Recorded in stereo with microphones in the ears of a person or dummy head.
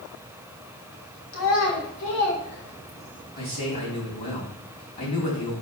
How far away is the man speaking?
About 4 m.